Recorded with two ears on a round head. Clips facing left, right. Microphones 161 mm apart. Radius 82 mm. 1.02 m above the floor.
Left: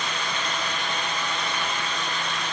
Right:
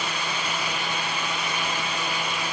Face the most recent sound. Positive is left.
No sound to turn to.